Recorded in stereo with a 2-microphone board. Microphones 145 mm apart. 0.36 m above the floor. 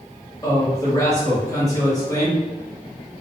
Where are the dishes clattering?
No dishes clattering in this recording.